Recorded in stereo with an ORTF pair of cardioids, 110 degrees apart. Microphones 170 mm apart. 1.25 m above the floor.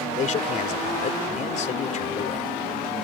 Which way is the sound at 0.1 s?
45° left.